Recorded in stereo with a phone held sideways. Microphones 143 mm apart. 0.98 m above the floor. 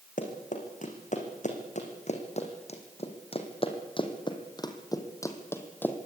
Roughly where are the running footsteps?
Left.